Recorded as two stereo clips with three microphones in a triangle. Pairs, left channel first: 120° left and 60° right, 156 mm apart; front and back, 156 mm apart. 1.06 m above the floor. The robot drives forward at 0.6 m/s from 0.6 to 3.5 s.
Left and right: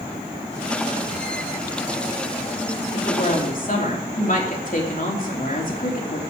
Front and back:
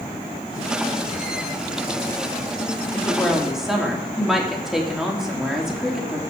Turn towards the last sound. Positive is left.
turn(degrees=95)